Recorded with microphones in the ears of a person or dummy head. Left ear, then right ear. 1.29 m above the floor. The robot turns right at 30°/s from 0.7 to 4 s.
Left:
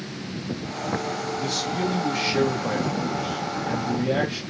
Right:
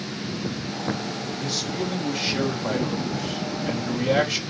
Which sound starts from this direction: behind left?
A man speaking, at 1.4 s.